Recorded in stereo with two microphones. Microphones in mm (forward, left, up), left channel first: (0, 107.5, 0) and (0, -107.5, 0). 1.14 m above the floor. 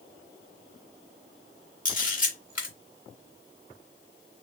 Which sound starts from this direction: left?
A camera shutter, at 1.9 s.